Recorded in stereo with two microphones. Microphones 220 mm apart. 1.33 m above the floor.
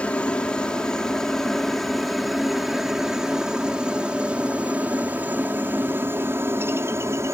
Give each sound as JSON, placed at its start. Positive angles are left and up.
{"t": 0.0, "sound": "a helicopter", "side_deg": 5}